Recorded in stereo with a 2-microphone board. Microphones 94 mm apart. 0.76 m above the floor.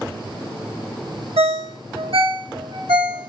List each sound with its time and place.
1.4 s a ringtone: 80° right, 0.6 m